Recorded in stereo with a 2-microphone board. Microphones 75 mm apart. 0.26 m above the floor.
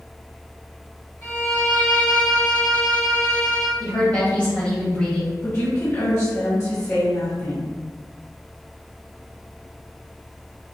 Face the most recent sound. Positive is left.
turn(degrees=40)  # may be behind; listen again after turning